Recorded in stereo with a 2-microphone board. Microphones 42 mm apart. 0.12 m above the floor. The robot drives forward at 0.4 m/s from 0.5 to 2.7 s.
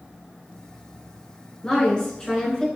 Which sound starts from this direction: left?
A woman speaking, at 1.6 s.